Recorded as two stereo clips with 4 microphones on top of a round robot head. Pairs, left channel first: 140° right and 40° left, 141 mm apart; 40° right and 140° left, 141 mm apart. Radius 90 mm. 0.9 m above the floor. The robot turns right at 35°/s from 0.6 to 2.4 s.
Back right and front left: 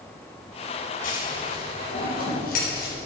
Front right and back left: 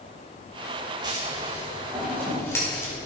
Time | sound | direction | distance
1.0 | scissors | 160° right | 4.5 m